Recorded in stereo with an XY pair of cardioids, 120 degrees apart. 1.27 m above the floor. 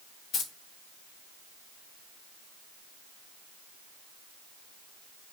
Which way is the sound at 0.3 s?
70° left.